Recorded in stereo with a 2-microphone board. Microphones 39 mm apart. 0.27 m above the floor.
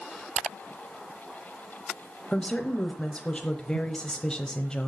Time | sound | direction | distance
2.3 | a woman speaking | 25° left (ahead or behind) | 1.0 m